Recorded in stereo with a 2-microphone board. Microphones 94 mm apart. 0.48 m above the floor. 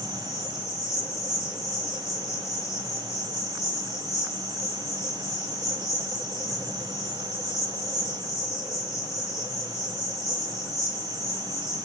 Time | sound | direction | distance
0.0 | an insect | 35° left (ahead or behind) | 1.2 m